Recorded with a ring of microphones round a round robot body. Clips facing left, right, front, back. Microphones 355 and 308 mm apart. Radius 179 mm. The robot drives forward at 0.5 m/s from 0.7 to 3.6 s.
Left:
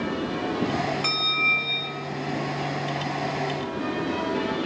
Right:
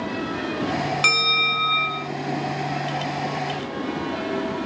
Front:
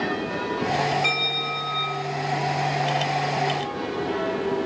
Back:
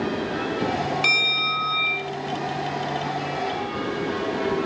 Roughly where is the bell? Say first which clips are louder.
Right 2 dB, front 1 dB; behind right.